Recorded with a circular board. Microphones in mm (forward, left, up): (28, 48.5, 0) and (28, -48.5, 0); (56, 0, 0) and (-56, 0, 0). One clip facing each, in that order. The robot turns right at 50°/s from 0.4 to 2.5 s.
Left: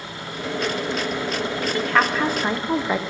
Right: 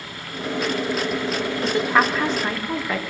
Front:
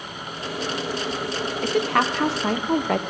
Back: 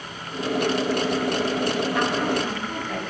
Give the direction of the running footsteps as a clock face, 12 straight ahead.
No running footsteps in this recording.